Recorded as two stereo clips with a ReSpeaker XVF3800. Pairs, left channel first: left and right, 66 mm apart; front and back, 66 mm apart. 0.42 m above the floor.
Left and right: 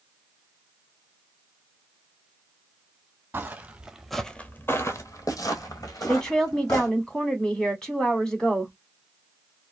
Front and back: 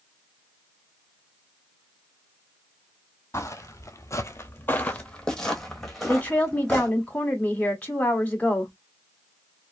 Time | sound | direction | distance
3.3 | footsteps | 35° right | 0.8 m
6.1 | a woman speaking | 35° left | 1.2 m